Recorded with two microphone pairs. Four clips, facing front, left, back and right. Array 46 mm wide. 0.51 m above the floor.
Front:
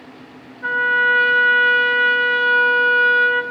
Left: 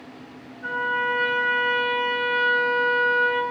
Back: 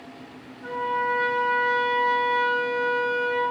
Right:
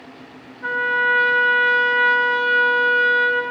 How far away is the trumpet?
About 0.7 m.